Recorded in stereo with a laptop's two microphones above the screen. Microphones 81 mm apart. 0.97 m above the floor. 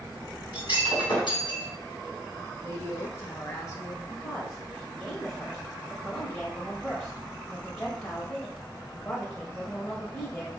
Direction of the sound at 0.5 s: 65° left (ahead or behind).